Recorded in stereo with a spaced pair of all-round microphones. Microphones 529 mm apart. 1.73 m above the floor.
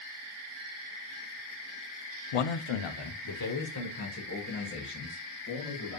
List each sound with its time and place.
2.3 s a man speaking: 85° left, 0.5 m; by 6.0 s 15° left (ahead or behind), 2.5 m